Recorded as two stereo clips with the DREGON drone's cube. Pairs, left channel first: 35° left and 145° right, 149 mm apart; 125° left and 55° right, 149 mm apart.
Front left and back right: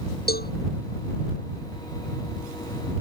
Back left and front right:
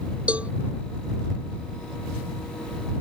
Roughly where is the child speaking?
No child speaking in this recording.